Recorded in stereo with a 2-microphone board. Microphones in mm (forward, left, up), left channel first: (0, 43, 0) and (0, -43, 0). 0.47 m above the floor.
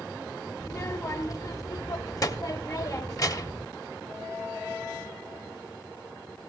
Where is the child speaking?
45° left (ahead or behind), 0.9 m.